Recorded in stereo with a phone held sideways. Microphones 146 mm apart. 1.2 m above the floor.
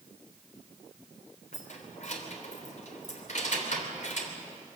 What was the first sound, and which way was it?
Keys jangling, 60° left (ahead or behind).